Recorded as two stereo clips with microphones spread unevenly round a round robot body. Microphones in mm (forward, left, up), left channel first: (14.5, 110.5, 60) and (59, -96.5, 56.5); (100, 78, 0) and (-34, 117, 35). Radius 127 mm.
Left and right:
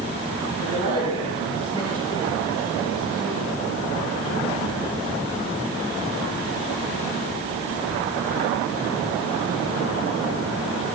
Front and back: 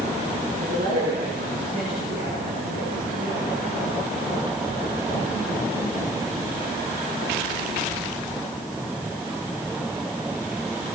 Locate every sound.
0.6 s a man speaking: 145° right, 9 m; by 3.5 s 155° right, 7.5 m